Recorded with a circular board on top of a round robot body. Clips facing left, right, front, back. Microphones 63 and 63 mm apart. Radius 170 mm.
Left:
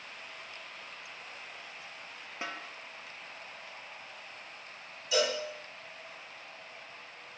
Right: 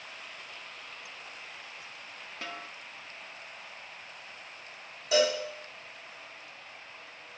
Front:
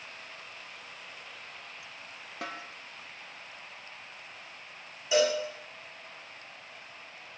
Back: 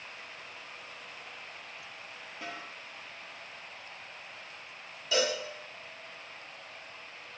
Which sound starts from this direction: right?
A cowbell, at 5.1 s.